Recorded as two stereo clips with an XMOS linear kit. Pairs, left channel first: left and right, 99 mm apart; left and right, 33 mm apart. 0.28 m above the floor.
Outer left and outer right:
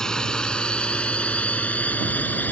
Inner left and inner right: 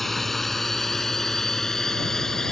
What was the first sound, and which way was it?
A drone, 5° left (ahead or behind).